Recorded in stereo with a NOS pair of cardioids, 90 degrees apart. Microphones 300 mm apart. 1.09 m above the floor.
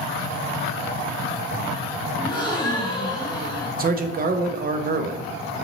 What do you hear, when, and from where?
2.2 s a gasp: 15° left, 1.3 m
3.8 s a man speaking: 30° right, 0.6 m